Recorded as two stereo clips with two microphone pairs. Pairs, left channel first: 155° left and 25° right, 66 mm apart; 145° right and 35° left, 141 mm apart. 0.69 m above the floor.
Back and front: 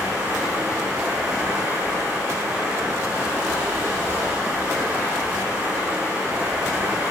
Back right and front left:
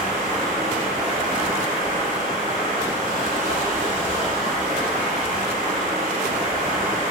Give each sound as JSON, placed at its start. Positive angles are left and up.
{"t": 0.0, "sound": "running water", "azimuth_deg": 40, "distance_m": 0.8}